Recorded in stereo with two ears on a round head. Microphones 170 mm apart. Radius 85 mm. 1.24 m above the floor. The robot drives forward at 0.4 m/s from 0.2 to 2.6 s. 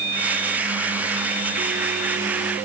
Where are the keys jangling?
I don't hear keys jangling.